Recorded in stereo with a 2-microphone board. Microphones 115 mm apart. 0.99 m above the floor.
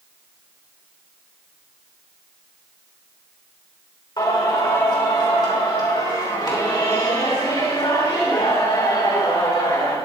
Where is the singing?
40° left (ahead or behind), 3.5 m.